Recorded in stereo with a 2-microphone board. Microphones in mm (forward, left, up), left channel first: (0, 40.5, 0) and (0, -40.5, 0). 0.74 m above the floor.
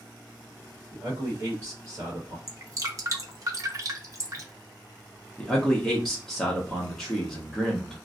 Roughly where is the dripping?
Right.